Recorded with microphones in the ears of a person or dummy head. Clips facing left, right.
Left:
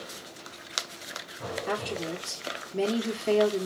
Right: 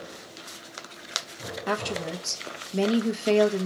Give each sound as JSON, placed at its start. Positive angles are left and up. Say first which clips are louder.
{"t": 1.7, "sound": "a woman speaking", "louder": "right 3 dB", "side_deg": -75, "distance_m": 1.1}